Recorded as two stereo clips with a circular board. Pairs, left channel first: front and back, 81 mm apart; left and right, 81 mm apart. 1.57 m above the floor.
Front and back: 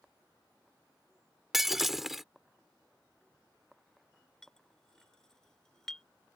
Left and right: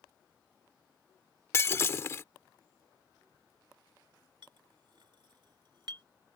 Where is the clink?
80° right.